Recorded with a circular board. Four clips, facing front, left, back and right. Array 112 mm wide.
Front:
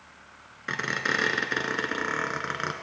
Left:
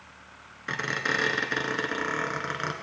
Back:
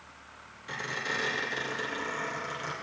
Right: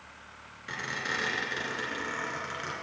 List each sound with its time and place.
0.7 s a squeak: 30° left, 1.3 m